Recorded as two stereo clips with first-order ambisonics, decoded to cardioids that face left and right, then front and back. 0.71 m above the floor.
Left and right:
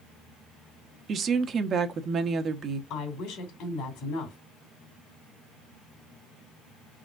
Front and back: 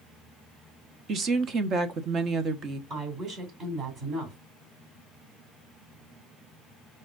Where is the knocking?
No knocking in this recording.